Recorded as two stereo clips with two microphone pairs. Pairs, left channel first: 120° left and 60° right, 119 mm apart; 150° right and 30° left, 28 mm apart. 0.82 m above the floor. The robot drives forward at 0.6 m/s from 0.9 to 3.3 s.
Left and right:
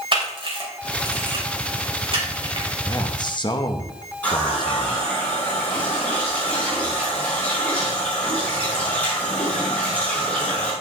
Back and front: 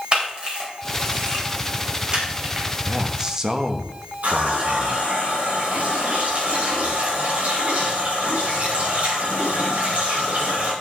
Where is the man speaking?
70° left, 1.0 m; by 5.0 s 90° left, 0.9 m.